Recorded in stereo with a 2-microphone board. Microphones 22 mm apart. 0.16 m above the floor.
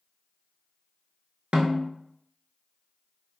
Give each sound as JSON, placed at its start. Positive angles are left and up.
{"t": 1.5, "sound": "a snare drum", "side_deg": -65, "distance_m": 0.7}